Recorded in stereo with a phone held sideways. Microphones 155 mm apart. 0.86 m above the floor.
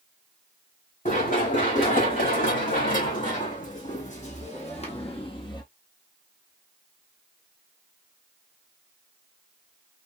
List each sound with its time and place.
1.1 s running footsteps: 65° left (ahead or behind), 3 m; by 5.6 s 30° left (ahead or behind), 1.0 m